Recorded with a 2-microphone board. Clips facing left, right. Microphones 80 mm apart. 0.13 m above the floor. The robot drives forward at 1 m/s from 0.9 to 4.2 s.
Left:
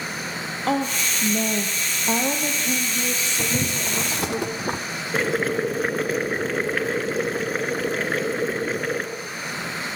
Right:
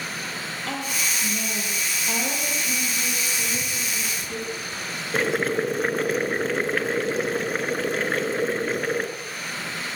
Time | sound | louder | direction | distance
0.7 | a woman speaking | left 8 dB | 40° left (ahead or behind) | 3 m
3.4 | boiling | left 4 dB | 65° left (ahead or behind) | 1.6 m
5.1 | boiling | even | centre (ahead or behind) | 1.7 m